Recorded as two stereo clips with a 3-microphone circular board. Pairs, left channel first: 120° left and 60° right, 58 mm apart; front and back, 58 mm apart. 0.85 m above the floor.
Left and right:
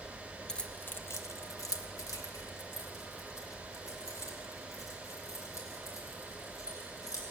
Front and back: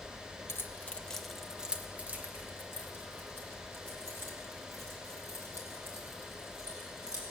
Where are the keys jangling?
40° left, 0.7 m; by 7.2 s 145° left, 4.5 m.